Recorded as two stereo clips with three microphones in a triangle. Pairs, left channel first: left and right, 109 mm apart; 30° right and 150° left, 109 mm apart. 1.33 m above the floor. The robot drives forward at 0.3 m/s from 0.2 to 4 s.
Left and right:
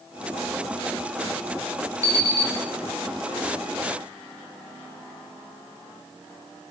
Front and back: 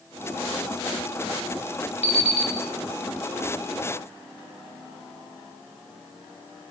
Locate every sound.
2.0 s an alarm clock: 30° right, 3 m